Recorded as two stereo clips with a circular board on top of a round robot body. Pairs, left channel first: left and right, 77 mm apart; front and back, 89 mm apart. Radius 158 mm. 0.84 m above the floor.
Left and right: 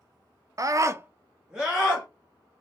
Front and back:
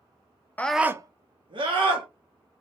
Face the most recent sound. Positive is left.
turn(degrees=180)